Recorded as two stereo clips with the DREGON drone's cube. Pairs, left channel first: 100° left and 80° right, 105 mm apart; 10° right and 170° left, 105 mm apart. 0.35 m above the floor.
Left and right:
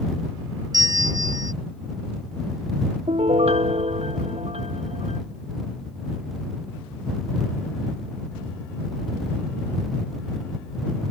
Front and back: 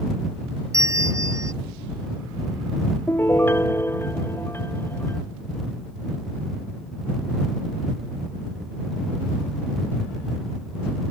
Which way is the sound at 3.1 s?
80° right.